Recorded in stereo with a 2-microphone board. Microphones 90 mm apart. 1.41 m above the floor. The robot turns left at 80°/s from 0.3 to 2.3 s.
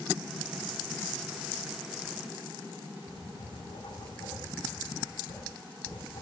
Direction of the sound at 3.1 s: 70° left (ahead or behind).